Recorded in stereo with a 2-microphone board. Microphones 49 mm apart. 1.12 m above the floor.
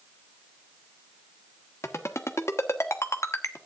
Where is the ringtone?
75° left (ahead or behind), 1.2 m.